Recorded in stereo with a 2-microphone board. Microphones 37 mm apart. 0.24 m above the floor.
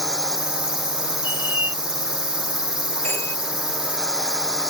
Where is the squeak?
70° right (ahead or behind).